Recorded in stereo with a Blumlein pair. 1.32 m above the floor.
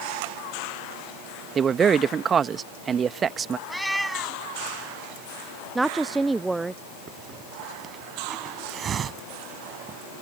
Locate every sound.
1.6 s a man speaking: 20° right
3.7 s a cat meowing: straight ahead
5.8 s a woman speaking: 10° right
7.1 s a hiss: 25° right